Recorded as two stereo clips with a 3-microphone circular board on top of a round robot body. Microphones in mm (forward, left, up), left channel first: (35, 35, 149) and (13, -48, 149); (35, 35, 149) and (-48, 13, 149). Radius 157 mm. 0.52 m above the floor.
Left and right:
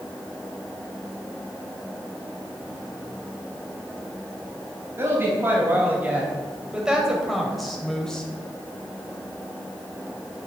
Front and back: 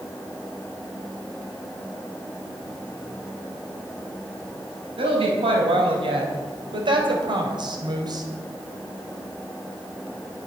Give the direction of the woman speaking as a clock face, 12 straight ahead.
6 o'clock.